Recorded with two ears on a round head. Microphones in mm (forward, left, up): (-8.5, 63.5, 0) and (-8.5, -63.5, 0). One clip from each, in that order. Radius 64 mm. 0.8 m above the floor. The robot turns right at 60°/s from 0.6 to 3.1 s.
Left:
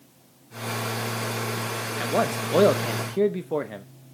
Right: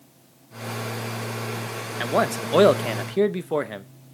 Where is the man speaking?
135° right, 0.6 m; by 3.9 s 65° right, 0.6 m.